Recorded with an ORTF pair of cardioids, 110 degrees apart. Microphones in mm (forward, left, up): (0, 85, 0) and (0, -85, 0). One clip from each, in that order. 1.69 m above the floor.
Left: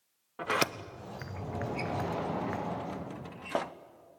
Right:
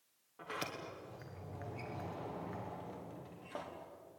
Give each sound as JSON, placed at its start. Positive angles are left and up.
{"t": 0.4, "sound": "a sliding door", "azimuth_deg": 70, "distance_m": 1.0}